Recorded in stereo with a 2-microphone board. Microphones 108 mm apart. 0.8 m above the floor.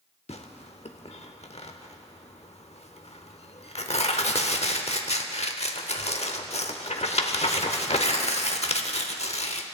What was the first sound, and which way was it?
Tearing paper, 80° left.